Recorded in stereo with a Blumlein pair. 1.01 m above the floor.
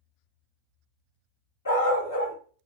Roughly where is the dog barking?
Left.